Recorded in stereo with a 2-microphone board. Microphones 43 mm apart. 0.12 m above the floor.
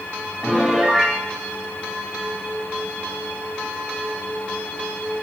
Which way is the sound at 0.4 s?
Centre (ahead or behind).